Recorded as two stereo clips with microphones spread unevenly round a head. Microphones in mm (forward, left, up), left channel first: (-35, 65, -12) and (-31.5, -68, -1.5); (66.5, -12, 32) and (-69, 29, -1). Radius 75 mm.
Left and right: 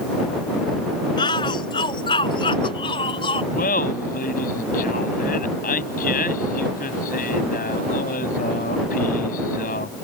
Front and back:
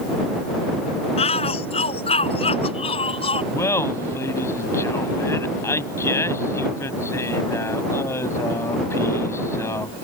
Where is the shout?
30° left.